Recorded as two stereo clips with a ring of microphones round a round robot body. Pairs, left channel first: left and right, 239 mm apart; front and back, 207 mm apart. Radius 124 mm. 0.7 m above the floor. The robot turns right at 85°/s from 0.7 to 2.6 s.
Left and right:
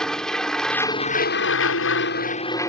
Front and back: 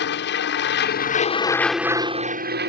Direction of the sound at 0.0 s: 5° left.